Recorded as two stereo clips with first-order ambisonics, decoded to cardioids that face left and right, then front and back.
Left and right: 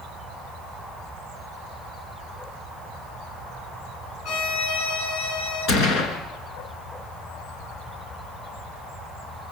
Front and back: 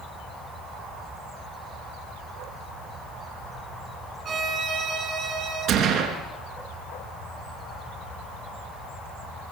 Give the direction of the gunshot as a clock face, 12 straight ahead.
8 o'clock.